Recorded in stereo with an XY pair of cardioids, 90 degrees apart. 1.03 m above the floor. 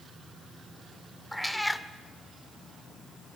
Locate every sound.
1.3 s a cat meowing: straight ahead, 1.4 m